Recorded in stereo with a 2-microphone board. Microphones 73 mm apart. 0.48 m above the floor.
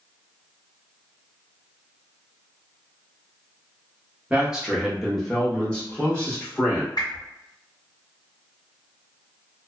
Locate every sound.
4.3 s a man speaking: 15° right (ahead or behind), 0.8 m; by 6.9 s 20° left (ahead or behind), 1.4 m
7.0 s a whoosh: 65° left (ahead or behind), 1.3 m